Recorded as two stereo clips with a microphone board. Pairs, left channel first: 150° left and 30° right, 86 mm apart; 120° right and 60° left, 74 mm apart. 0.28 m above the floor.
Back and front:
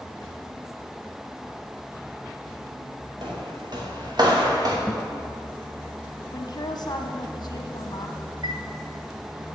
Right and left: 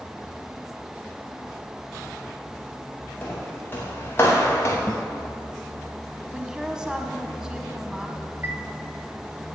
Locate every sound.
3.2 s footsteps: 55° right, 5 m; by 4.8 s 70° right, 3.5 m
4.9 s a guitar: 115° right, 0.8 m
6.3 s a woman speaking: 140° left, 1.7 m
8.4 s a chime: 5° left, 1.2 m